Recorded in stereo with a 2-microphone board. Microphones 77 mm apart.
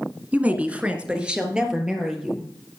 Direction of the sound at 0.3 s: 20° right (ahead or behind).